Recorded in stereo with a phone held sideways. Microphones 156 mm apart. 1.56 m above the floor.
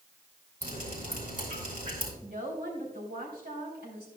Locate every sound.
0.6 s dripping: 60° right (ahead or behind), 3.5 m
2.2 s a woman speaking: 85° right, 3.5 m